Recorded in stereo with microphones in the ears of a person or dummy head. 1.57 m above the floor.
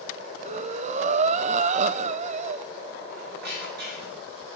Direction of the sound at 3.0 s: 60° right (ahead or behind).